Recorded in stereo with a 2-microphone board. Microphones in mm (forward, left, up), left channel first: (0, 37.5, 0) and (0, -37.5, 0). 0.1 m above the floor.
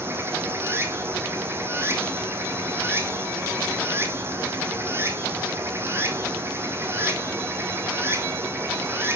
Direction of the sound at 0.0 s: 30° right (ahead or behind).